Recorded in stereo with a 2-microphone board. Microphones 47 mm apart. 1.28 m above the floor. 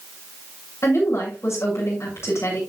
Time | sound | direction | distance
0.8 | a woman speaking | 70° left (ahead or behind) | 8 m